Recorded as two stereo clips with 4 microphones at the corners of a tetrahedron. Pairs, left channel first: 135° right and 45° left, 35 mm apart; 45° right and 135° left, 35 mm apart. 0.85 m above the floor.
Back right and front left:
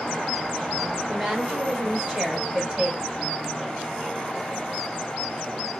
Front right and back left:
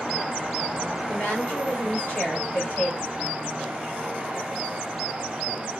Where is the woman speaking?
5° right, 2.0 m.